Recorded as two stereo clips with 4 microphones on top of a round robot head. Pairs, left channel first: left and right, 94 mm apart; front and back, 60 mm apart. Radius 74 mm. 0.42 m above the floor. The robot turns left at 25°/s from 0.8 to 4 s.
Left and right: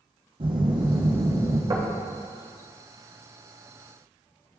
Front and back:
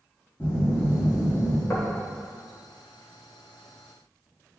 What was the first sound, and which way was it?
A phone buzzing, 60° right.